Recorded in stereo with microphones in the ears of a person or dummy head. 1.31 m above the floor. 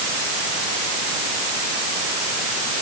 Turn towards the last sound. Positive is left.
No sound to turn to.